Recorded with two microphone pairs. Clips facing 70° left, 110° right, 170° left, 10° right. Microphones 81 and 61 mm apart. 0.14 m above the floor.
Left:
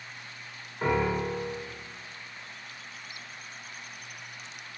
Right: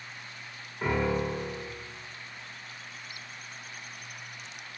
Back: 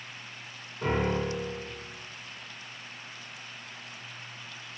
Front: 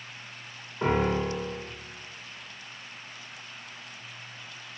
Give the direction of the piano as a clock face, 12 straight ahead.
12 o'clock.